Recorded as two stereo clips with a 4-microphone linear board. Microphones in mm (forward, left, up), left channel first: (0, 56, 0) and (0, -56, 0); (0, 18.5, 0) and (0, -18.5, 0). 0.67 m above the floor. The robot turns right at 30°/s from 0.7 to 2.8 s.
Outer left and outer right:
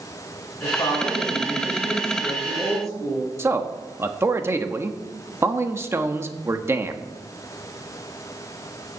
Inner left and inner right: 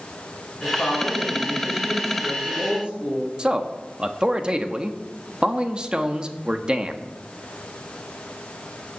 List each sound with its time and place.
0.6 s a woman speaking: 145° left, 8.5 m; by 3.3 s 155° right, 8.5 m
3.4 s a man speaking: 25° right (ahead or behind), 1.2 m